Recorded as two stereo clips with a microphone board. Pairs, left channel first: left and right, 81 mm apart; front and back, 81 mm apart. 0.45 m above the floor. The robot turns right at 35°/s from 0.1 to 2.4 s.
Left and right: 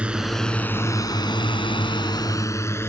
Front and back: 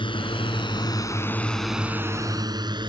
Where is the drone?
15° right; by 2.9 s 150° left.